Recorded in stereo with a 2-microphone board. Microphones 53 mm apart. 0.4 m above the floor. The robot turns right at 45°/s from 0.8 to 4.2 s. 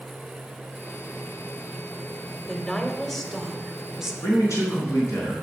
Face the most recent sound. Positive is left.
turn(degrees=70)  # may be behind; listen again after turning